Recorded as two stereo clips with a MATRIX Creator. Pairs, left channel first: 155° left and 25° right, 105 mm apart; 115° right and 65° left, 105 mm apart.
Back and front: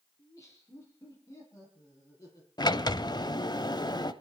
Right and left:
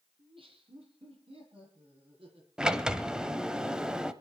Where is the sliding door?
145° left, 0.9 m.